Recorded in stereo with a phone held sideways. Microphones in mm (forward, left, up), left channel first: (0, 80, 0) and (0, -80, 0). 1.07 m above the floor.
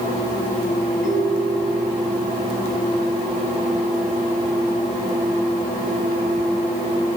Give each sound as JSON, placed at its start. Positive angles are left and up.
{"t": 1.0, "sound": "a ringtone", "side_deg": -55, "distance_m": 6.0}